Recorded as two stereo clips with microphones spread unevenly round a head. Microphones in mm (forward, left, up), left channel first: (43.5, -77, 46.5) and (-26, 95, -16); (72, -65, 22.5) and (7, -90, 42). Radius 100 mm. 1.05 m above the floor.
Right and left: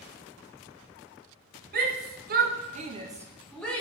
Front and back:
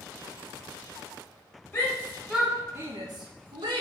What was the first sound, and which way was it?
A shout, 85° left.